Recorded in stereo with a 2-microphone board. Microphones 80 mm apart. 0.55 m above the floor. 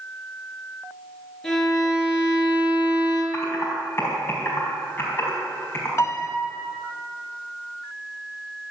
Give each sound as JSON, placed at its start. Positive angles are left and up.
{"t": 1.4, "sound": "a violin", "side_deg": 5, "distance_m": 5.0}
{"t": 3.3, "sound": "typing on a keyboard", "side_deg": 30, "distance_m": 4.5}
{"t": 6.0, "sound": "a piano", "side_deg": 35, "distance_m": 1.5}